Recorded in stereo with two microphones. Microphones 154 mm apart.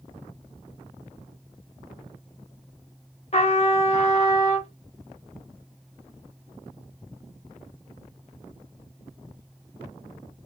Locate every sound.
3.3 s a trumpet: 45° left (ahead or behind), 0.7 m